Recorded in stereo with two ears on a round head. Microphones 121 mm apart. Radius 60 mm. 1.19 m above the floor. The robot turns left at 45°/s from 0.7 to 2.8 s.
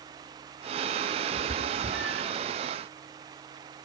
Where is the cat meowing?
40° right (ahead or behind), 3 m; by 2.3 s 5° left (ahead or behind), 3 m.